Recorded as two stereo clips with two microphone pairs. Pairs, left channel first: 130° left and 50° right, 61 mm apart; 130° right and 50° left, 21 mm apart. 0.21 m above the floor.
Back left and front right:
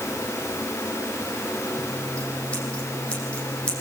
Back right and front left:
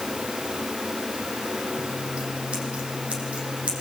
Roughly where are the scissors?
Ahead left.